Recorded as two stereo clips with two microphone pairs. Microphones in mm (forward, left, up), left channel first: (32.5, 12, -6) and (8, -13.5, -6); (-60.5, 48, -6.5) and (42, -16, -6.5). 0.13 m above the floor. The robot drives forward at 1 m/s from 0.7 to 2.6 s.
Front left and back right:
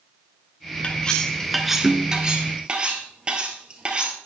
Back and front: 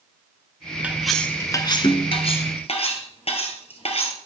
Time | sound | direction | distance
0.8 | cutlery clinking | 35° left | 0.9 m